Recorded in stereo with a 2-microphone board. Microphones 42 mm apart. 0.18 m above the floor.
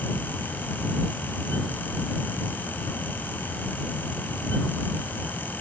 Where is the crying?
No crying in this recording.